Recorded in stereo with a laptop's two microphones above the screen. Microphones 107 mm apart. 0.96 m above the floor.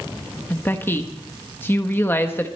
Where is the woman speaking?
20° left (ahead or behind), 1.1 m.